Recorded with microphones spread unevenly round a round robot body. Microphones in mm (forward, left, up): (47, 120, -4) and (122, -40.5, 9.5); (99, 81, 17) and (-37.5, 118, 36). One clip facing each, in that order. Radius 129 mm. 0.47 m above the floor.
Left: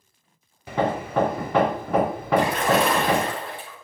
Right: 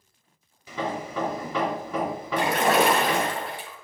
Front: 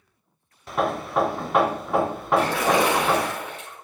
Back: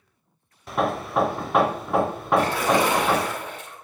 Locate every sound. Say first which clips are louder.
0.7 s hammering: left 6 dB, even; 75° left, 0.7 m
2.4 s a splash: left 1 dB, even; 40° right, 3.5 m